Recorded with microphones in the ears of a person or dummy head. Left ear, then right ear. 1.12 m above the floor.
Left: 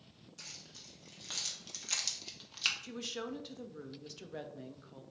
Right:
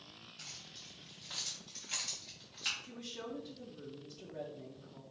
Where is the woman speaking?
45° left (ahead or behind), 0.5 m.